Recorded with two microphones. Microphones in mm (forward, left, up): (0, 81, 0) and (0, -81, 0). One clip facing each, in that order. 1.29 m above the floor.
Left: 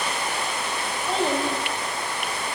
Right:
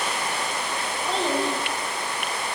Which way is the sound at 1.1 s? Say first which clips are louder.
Left 1 dB; 10° left (ahead or behind).